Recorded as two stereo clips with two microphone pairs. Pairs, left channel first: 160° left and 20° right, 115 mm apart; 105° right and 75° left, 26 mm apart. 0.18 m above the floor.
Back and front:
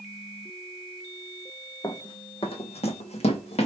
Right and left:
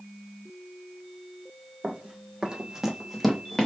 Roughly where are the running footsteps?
Left.